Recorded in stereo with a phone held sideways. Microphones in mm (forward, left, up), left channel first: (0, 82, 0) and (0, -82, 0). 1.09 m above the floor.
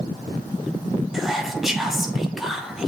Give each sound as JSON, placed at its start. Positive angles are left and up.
{"t": 1.1, "sound": "whispering", "side_deg": 0, "distance_m": 2.0}